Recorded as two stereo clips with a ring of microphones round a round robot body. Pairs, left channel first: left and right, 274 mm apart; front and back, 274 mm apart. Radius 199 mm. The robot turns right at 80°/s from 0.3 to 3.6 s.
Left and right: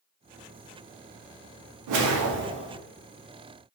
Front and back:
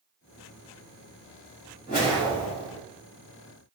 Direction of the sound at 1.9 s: 75° right.